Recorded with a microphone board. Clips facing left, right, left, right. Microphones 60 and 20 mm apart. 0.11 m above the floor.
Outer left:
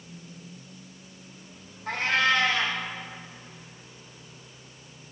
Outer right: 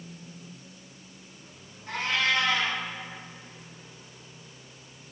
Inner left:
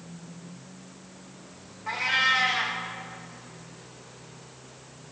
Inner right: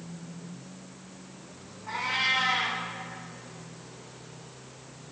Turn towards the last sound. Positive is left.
turn(degrees=80)